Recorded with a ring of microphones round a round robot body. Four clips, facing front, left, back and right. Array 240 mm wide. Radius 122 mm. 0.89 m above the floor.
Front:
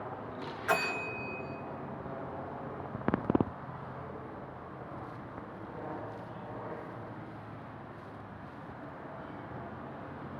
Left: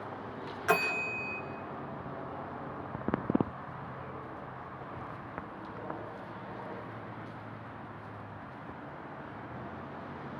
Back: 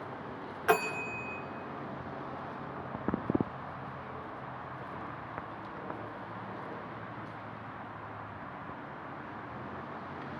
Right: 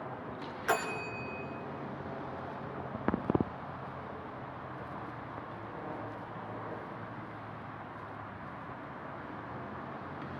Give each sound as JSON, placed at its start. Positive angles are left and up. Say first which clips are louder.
{"t": 0.7, "sound": "a bell", "louder": "left 3 dB, back 3 dB", "azimuth_deg": 170, "distance_m": 2.5}